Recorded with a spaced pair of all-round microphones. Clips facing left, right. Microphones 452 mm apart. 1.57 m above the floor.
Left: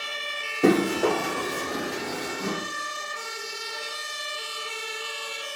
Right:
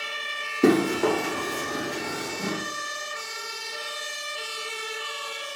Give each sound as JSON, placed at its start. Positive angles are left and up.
{"t": 0.6, "sound": "running footsteps", "side_deg": -10, "distance_m": 1.7}